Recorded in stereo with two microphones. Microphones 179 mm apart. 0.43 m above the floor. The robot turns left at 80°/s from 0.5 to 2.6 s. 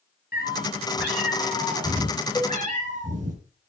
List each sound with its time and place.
0.3 s a cat meowing: 120° left, 3.5 m; by 3.4 s 45° right, 3.5 m
2.4 s a cowbell: 10° left (ahead or behind), 1.5 m; by 2.6 s 10° right (ahead or behind), 1.5 m